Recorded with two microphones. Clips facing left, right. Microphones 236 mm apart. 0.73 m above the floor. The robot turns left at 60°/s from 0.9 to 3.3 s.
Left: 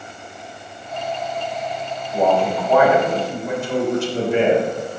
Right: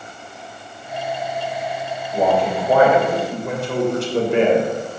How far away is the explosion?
No explosion in this recording.